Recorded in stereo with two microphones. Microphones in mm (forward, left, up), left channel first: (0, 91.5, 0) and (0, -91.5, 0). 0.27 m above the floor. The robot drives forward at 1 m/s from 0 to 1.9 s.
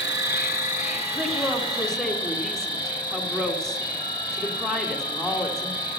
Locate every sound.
0.0 s an insect: 85° left, 0.8 m; by 6.0 s 25° left (ahead or behind), 2 m
1.1 s a woman speaking: 5° left (ahead or behind), 2.0 m